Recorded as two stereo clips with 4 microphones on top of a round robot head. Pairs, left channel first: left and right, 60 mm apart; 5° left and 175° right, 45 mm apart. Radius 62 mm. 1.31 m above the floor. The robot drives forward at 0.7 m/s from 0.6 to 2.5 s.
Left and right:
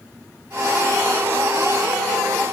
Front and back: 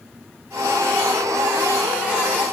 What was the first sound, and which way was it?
Only background noise.